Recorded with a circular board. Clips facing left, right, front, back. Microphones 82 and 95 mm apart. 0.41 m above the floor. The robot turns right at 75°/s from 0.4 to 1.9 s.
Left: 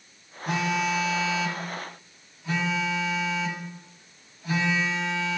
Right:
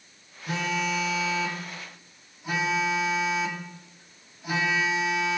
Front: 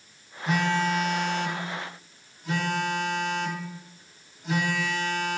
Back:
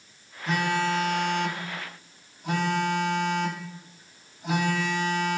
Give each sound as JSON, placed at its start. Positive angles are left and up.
{"t": 0.5, "sound": "a phone buzzing", "azimuth_deg": 85, "distance_m": 1.8}